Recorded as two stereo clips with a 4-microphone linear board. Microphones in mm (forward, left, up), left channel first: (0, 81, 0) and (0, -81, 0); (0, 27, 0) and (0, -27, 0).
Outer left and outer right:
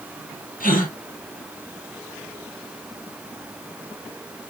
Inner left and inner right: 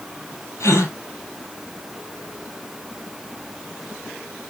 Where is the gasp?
60° left (ahead or behind), 1.4 m.